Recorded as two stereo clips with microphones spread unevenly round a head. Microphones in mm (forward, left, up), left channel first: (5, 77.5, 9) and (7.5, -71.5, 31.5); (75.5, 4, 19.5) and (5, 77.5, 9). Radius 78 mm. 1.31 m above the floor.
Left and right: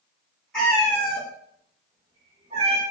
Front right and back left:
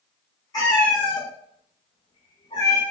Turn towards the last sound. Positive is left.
turn(degrees=-95)